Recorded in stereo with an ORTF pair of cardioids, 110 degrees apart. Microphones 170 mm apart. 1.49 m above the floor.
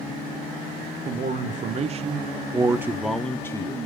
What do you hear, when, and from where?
1.1 s a man speaking: 50° right, 1.4 m; by 3.8 s 25° left, 0.9 m